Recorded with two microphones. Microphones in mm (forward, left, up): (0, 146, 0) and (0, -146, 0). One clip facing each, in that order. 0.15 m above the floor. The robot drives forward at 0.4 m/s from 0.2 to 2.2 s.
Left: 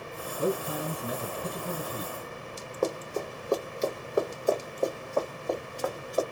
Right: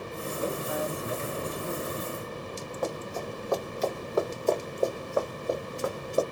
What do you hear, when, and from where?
0.4 s a man speaking: 35° left (ahead or behind), 2 m
2.8 s running footsteps: 50° left (ahead or behind), 1.3 m; by 6.2 s 30° right (ahead or behind), 1.5 m